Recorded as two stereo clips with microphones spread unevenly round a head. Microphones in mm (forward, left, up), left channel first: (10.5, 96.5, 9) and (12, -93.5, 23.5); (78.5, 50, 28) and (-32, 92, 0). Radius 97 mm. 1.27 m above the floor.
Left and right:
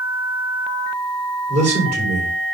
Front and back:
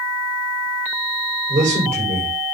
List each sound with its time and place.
1.5 s a man speaking: 145° right, 6.5 m